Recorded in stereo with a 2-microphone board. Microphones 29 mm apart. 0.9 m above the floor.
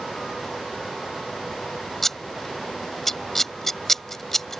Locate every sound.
2.0 s scissors: 10° left (ahead or behind)